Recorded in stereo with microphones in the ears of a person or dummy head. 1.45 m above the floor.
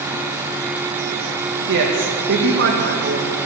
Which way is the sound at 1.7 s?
60° right (ahead or behind).